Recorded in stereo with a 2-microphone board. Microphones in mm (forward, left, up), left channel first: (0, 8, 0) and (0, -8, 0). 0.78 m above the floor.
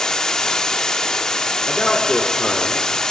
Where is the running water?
45° left (ahead or behind), 1.3 m.